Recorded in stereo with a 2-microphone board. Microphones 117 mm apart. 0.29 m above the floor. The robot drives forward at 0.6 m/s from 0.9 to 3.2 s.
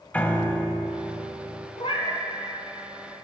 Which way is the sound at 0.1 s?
15° left (ahead or behind).